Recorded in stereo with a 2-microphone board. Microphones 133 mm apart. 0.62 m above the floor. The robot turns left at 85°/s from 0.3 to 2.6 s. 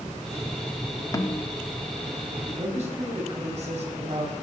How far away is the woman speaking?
About 4.5 m.